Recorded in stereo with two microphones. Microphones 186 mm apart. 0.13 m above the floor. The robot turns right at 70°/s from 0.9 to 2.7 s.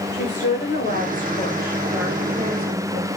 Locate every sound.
0.1 s a woman speaking: 110° left, 9.5 m; by 3.1 s 120° right, 9.5 m